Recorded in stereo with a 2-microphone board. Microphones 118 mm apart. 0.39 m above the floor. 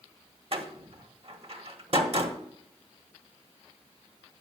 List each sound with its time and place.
0.5 s a door slam: 55° right (ahead or behind), 1.4 m